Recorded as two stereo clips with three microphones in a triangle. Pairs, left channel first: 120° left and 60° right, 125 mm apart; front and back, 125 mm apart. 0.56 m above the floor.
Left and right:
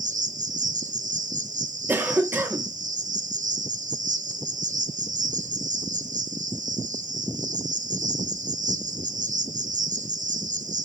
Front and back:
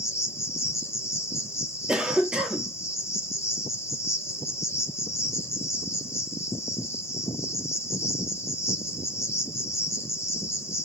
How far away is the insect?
About 0.7 m.